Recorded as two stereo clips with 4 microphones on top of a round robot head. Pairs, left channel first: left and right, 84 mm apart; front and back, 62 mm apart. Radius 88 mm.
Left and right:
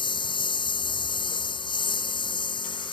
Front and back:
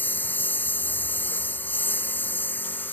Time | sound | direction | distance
0.0 | a lawn mower | 65° left | ?